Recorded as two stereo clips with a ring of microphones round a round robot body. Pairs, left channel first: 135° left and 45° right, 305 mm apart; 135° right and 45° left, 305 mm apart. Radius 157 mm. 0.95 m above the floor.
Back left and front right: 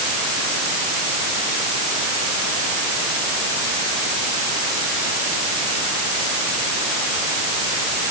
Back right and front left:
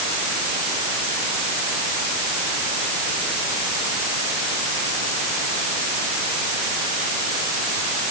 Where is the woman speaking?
I don't hear a woman speaking.